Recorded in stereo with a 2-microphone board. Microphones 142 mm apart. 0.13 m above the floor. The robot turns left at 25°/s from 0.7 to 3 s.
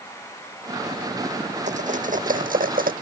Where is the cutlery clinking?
55° right (ahead or behind); by 2.9 s 80° right.